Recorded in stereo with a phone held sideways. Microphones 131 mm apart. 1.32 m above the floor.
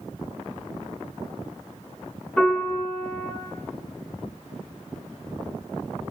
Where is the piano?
5° left (ahead or behind), 7.5 m.